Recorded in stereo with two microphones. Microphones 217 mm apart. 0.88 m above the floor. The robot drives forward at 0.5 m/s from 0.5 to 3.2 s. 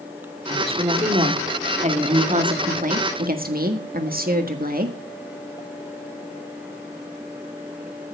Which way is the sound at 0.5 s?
25° right (ahead or behind).